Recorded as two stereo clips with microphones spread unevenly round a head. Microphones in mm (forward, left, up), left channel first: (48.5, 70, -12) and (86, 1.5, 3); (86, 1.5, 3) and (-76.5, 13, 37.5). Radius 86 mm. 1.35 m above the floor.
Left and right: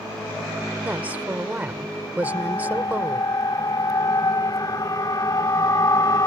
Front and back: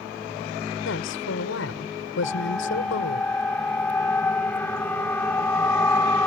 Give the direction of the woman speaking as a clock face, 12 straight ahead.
12 o'clock.